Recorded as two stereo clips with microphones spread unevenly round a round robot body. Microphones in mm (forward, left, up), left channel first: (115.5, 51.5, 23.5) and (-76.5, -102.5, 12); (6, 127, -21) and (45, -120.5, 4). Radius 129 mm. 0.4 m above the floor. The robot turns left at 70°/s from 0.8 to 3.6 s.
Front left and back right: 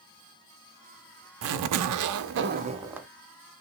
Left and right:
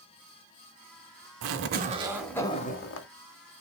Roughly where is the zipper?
Behind right.